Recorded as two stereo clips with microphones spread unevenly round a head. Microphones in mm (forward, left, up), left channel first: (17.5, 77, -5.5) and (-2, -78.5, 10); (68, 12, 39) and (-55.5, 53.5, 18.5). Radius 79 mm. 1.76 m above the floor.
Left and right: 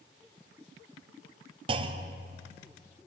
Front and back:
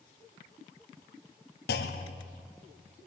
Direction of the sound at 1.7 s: 40° right.